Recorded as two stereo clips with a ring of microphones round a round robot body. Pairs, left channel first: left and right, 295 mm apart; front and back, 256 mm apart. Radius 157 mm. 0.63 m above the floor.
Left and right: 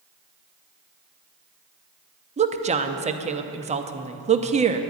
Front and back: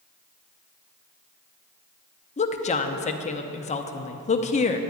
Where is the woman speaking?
40° right, 0.7 m.